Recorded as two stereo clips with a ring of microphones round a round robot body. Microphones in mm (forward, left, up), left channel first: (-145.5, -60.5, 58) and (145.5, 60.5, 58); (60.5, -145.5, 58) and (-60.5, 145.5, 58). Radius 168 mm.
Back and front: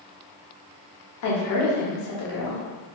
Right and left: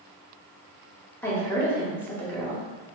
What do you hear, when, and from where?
1.2 s a woman speaking: 150° right, 1.0 m